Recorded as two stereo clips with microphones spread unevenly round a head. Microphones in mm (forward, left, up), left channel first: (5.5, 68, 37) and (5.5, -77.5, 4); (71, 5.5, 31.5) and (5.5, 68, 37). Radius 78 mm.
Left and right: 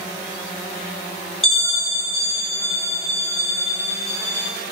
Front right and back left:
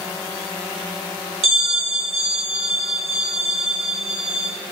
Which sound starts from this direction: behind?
A bell, at 1.4 s.